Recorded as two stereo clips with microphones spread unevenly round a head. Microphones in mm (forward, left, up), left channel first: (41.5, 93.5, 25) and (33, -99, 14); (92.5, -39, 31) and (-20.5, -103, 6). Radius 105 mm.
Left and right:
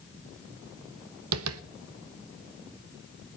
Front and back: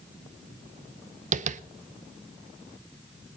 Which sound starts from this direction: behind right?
Tapping, at 1.3 s.